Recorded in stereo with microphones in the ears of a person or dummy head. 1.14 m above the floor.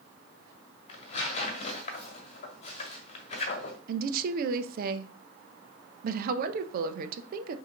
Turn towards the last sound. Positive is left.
turn(degrees=-60)  # may be behind; listen again after turning